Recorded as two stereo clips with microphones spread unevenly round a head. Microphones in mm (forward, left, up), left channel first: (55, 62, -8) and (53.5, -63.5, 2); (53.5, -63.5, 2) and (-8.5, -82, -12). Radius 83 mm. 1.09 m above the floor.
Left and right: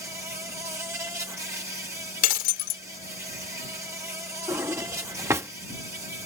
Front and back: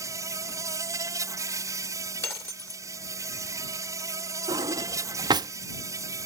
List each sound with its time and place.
0.0 s an insect: 165° right
2.2 s breaking glass: 90° left
4.5 s a drawer: 160° right